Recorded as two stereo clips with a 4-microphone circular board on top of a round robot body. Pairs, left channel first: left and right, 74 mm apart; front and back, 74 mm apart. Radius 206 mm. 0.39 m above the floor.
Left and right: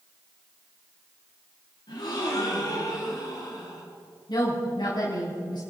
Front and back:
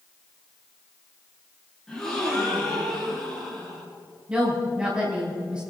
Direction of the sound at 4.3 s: 100° left.